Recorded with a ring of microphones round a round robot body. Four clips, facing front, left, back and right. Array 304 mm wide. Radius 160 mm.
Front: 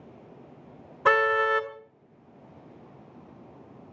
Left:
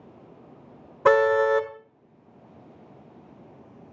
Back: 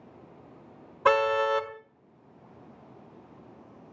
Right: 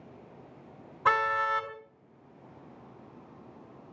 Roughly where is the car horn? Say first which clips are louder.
Left 9 dB, even; left.